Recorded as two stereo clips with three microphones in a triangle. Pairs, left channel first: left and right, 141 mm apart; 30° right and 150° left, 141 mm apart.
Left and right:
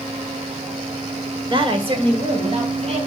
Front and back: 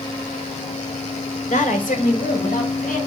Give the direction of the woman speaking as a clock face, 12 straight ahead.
1 o'clock.